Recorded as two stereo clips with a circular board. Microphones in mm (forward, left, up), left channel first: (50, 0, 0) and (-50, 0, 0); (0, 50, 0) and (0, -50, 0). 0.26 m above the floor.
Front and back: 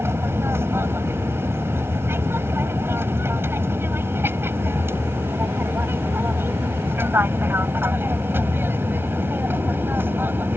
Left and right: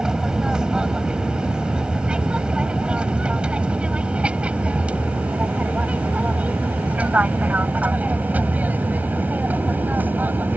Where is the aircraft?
165° right; by 10.6 s 140° right.